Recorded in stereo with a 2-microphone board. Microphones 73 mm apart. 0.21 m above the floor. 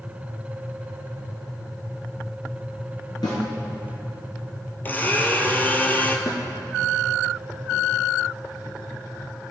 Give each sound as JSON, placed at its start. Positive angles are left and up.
{"t": 3.2, "sound": "a snare drum", "side_deg": 70, "distance_m": 3.0}
{"t": 4.8, "sound": "a blender", "side_deg": 25, "distance_m": 0.8}
{"t": 6.3, "sound": "a snare drum", "side_deg": 70, "distance_m": 1.1}